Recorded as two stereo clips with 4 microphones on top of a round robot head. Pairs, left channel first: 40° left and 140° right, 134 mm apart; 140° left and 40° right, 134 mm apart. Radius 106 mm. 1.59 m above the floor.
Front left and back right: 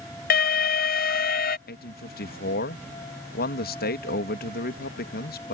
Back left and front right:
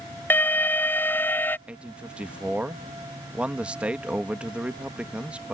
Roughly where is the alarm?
Ahead left.